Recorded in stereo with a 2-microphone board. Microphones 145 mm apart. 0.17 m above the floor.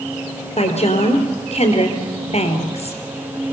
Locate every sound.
0.6 s a woman speaking: 50° left (ahead or behind), 3 m